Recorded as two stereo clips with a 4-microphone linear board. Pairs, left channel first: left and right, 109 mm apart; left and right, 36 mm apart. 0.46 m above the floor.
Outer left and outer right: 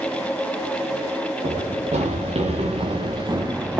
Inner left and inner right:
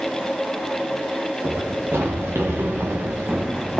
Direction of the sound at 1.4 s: 80° right.